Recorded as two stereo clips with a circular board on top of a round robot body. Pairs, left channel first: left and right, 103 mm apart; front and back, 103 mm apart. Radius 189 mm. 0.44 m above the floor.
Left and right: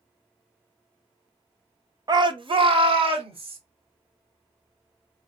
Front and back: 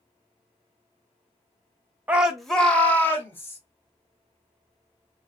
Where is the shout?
115° right, 1.0 m; by 3.6 s 65° right, 2.5 m.